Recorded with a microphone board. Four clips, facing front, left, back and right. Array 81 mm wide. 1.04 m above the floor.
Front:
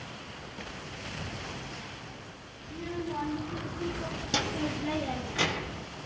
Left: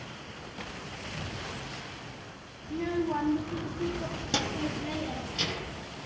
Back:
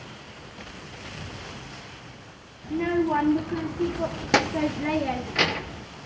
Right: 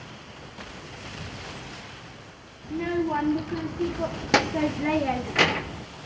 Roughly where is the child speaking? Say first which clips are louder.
Right 4 dB, back 12 dB; behind.